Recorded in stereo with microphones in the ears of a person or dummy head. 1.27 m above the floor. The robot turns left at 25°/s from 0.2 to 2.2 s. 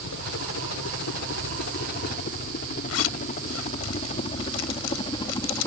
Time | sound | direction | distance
0.0 | a helicopter | 65° left (ahead or behind) | ?
2.9 | a zipper | 90° left | ?